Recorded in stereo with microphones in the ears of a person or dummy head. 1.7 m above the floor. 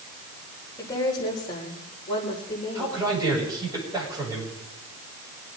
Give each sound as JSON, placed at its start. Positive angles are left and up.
{"t": 0.8, "sound": "a woman speaking", "side_deg": 20, "distance_m": 6.0}
{"t": 2.8, "sound": "a man speaking", "side_deg": -20, "distance_m": 8.5}